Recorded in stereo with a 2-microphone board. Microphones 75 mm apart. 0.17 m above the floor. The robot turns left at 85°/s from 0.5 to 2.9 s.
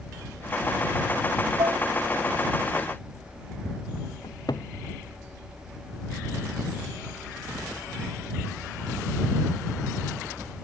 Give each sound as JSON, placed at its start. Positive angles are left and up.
{"t": 1.6, "sound": "dishes clattering", "side_deg": -75}
{"t": 4.2, "sound": "a cupboard door", "side_deg": 65}